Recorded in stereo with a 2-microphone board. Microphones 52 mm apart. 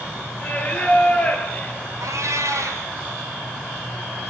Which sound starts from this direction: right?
A cat meowing, at 2.0 s.